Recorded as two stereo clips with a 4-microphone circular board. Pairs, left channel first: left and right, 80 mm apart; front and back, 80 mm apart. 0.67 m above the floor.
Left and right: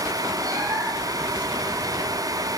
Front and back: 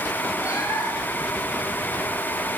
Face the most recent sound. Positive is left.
turn(degrees=-50)